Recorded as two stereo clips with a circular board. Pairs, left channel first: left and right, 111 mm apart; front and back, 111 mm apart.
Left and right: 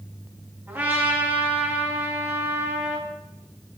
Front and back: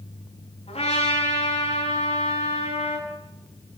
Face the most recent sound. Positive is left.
turn(degrees=-20)